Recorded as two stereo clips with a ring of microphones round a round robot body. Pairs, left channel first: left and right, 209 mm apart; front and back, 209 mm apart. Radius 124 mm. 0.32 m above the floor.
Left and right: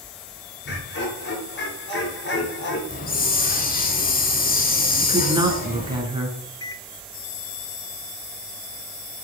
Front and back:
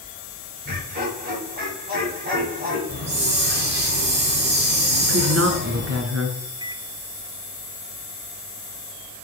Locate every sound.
0.7 s laughter: 125° left, 7 m
2.9 s a hiss: 140° left, 2.5 m
5.0 s a woman speaking: 160° right, 4 m
6.6 s a microwave: 140° left, 0.9 m